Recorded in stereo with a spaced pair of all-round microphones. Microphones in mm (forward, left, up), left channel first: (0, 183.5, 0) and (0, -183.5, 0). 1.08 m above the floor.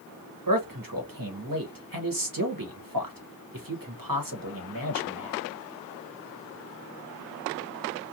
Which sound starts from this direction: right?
A man speaking, at 0.5 s.